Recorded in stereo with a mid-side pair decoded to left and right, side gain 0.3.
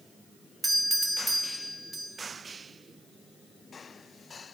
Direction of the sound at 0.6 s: 35° right.